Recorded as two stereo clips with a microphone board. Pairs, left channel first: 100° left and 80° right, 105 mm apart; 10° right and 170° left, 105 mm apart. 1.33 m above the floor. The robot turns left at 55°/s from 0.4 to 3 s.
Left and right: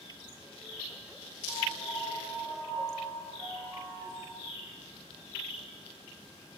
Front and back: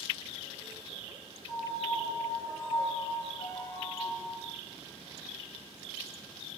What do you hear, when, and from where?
1.5 s a piano: 120° left, 1.4 m; by 4.4 s 40° left, 1.4 m